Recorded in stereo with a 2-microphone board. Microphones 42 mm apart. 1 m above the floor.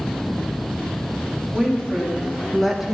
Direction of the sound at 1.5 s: 20° left (ahead or behind).